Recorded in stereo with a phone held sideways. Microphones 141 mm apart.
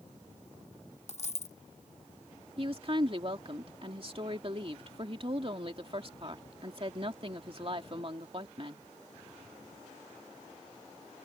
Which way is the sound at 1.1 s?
55° left (ahead or behind).